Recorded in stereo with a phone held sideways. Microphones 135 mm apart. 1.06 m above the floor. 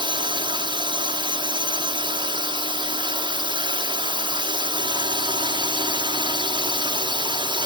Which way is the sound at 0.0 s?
35° right (ahead or behind).